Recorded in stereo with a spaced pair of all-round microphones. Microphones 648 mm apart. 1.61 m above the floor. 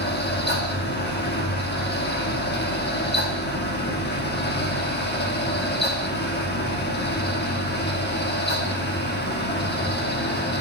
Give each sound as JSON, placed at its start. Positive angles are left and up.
{"t": 0.0, "sound": "a fan", "side_deg": 15, "distance_m": 1.1}